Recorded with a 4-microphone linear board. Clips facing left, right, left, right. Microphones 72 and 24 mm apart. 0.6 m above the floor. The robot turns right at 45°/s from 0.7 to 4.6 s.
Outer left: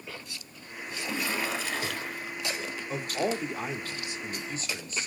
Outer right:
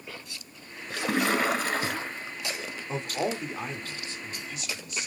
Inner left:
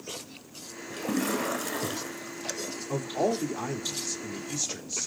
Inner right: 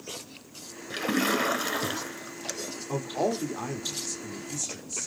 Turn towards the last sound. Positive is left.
turn(degrees=45)